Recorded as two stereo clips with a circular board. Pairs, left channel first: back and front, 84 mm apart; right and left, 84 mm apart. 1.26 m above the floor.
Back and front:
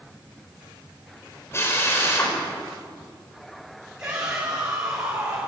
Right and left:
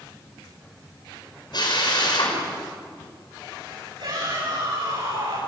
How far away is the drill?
About 5.5 m.